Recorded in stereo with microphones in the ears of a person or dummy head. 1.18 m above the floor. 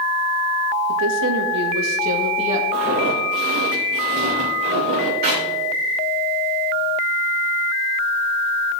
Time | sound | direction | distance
0.9 | a woman speaking | 75° right (ahead or behind) | 1.5 m
2.7 | footsteps | 45° right (ahead or behind) | 4.5 m
5.2 | a clap | 45° right (ahead or behind) | 4.5 m